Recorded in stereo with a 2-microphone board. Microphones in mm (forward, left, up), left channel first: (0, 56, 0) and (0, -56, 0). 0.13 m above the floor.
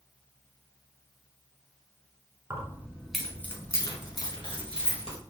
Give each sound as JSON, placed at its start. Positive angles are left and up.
{"t": 2.5, "sound": "keys jangling", "side_deg": -30, "distance_m": 0.8}